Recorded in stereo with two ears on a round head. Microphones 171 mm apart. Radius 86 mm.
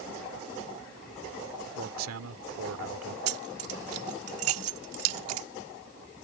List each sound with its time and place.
1.8 s a man speaking: 80° right
3.3 s keys jangling: 75° right (ahead or behind)